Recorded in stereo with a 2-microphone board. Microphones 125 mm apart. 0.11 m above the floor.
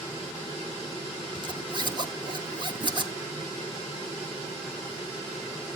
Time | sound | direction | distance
1.4 | a zipper | 35° right (ahead or behind) | 1.2 m